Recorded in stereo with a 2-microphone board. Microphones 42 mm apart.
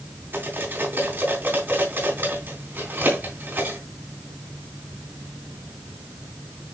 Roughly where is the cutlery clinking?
Right.